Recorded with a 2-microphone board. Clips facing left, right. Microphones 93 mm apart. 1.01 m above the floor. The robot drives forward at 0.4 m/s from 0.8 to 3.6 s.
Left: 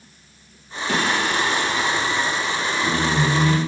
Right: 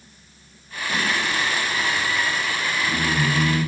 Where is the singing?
70° left (ahead or behind), 2.5 m; by 3.6 s 50° left (ahead or behind), 3 m.